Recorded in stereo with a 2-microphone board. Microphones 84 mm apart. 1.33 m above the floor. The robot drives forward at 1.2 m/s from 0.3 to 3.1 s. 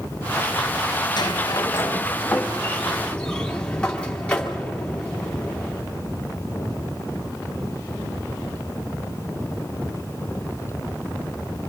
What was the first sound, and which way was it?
A sliding door, 55° left (ahead or behind).